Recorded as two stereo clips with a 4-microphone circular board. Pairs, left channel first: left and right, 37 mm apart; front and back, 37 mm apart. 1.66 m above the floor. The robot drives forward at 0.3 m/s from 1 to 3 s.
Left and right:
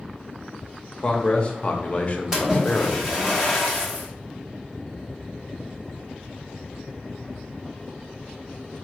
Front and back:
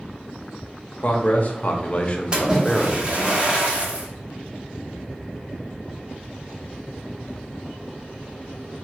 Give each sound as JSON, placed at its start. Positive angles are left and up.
{"t": 1.0, "sound": "a man speaking", "azimuth_deg": 35, "distance_m": 1.0}
{"t": 2.3, "sound": "a splash", "azimuth_deg": -145, "distance_m": 1.3}